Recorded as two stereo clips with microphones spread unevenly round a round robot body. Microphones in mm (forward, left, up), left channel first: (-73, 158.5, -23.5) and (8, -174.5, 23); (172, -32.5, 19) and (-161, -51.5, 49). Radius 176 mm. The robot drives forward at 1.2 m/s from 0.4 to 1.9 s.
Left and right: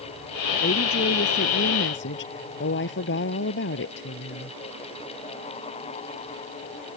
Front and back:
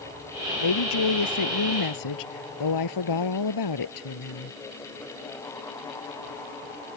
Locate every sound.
0.6 s a woman speaking: 35° left; by 4.6 s 40° left